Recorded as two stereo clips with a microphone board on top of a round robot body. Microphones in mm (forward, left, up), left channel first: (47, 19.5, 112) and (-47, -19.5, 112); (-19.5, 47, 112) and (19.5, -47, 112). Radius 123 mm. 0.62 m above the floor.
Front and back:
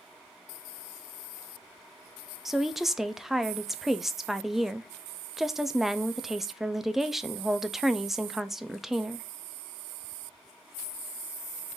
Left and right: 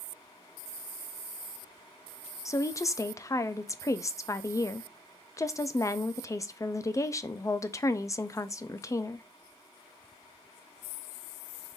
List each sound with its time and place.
2.5 s a woman speaking: 115° left, 0.6 m